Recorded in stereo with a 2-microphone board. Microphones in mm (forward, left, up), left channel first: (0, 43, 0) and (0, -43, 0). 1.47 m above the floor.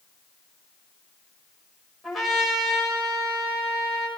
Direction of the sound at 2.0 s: Centre (ahead or behind).